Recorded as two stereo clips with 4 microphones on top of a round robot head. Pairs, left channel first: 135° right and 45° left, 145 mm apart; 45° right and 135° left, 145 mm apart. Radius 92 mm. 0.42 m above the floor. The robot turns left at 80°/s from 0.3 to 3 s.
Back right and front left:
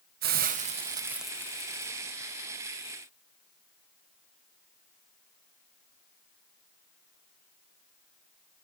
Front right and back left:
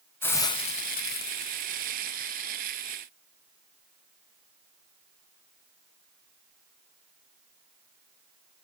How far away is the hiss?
About 1.1 m.